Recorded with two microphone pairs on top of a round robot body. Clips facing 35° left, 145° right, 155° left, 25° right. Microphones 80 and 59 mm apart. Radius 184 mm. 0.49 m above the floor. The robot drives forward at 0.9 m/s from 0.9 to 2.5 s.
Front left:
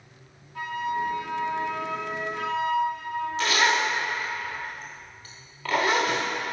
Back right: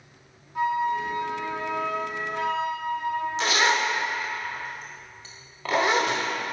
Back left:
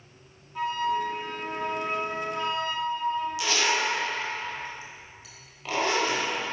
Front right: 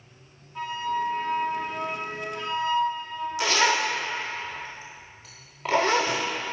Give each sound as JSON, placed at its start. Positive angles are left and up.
{"t": 0.6, "sound": "a flute", "azimuth_deg": -110, "distance_m": 1.4}
{"t": 3.4, "sound": "a zipper", "azimuth_deg": -80, "distance_m": 0.7}